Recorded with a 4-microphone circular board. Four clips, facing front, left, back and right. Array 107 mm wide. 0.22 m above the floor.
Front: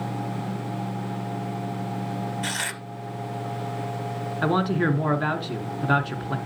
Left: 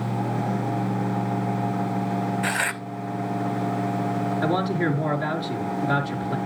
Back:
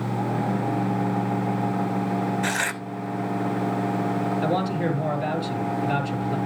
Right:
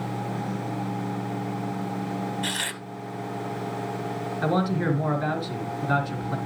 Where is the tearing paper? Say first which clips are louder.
Left 6 dB, back 5 dB; 125° left, 0.6 m.